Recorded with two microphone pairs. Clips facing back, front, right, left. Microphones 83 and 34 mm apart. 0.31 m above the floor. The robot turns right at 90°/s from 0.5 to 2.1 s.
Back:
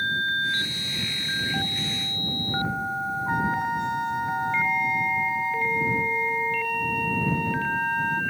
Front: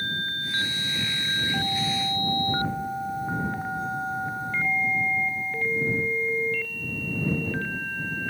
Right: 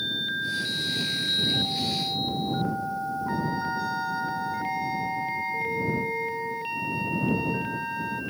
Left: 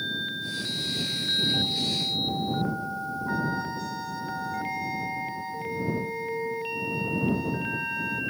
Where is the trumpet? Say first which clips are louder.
Back 4 dB, left 1 dB; 165° right.